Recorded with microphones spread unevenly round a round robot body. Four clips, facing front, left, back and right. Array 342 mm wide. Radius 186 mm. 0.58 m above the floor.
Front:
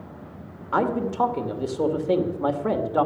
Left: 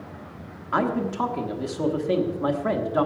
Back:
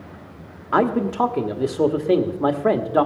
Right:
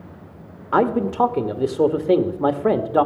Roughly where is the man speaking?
Behind right.